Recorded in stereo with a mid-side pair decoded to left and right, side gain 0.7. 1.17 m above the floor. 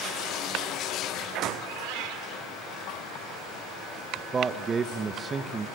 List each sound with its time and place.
1.6 s a cat meowing: 70° right, 1.9 m
4.2 s a man speaking: 25° right, 1.3 m